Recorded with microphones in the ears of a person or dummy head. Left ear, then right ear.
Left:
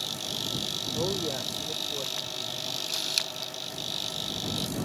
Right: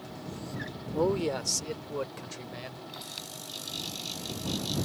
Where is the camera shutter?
50° left (ahead or behind).